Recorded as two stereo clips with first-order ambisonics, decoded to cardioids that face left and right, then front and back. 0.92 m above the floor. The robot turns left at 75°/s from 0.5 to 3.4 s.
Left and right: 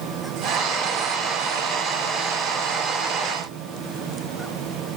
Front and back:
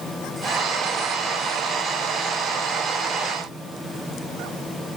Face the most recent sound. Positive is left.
No sound to turn to.